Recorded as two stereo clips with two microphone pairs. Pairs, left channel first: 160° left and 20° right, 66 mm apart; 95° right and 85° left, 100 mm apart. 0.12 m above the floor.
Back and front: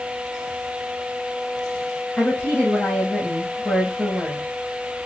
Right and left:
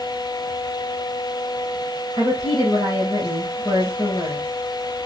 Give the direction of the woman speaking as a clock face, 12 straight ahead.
4 o'clock.